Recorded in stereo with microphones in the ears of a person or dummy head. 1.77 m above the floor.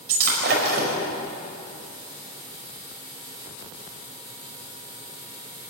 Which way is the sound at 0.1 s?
60° right (ahead or behind).